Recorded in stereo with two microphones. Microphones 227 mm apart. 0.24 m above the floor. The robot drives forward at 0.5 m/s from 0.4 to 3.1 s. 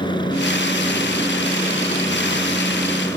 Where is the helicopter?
20° left (ahead or behind); by 3.2 s 15° left (ahead or behind).